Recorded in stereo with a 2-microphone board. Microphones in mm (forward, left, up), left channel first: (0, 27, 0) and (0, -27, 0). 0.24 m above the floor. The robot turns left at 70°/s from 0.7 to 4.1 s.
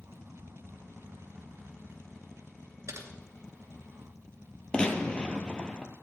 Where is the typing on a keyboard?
70° right (ahead or behind), 3 m; by 3.1 s 65° right (ahead or behind), 3 m.